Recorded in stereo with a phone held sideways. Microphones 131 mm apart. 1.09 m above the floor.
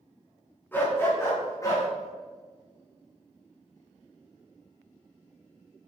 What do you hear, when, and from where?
0.7 s a dog barking: 15° left (ahead or behind), 4.5 m; by 1.9 s 25° left (ahead or behind), 5 m